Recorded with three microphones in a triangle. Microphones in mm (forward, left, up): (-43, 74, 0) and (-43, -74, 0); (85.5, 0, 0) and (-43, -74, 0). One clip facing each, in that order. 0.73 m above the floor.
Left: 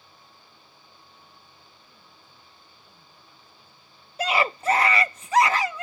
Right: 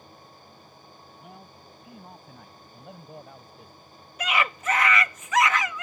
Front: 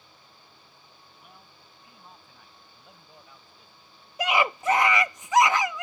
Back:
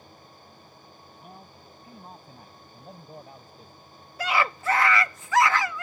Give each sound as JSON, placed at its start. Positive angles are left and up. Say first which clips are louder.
{"t": 1.2, "sound": "a man speaking", "louder": "right 8 dB, back 8 dB", "azimuth_deg": -100}
{"t": 4.2, "sound": "a scream", "louder": "left 3 dB, front 2 dB", "azimuth_deg": 85}